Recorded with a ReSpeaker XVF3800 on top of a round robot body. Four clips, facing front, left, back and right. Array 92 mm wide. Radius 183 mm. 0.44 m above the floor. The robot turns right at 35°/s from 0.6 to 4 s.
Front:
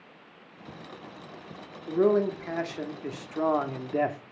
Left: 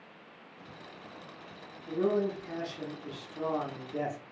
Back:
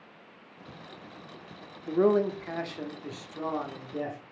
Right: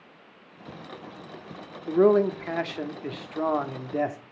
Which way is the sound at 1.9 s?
105° right.